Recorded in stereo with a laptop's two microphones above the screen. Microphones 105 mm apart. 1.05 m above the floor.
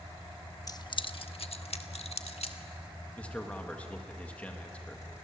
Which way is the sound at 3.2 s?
15° left (ahead or behind).